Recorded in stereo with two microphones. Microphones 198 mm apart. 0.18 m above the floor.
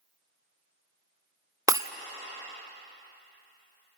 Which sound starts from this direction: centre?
Breaking glass, at 1.7 s.